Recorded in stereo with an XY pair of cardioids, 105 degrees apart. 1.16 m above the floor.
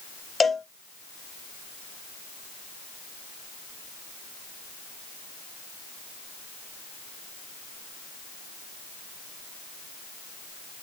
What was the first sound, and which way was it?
A cowbell, 25° left.